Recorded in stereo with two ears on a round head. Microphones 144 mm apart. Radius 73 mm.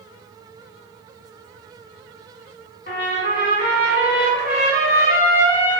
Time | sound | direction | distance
2.9 | a trumpet | 55° left (ahead or behind) | 1.8 m